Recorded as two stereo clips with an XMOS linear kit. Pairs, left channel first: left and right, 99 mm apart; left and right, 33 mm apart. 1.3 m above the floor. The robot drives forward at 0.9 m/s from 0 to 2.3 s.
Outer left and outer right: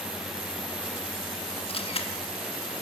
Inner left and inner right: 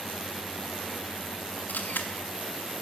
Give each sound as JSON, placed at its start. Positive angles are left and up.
{"t": 1.7, "sound": "a camera shutter", "side_deg": 80, "distance_m": 2.5}